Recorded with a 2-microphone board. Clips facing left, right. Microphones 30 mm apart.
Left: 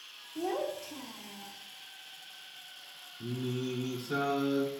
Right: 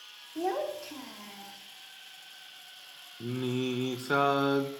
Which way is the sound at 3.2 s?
70° right (ahead or behind).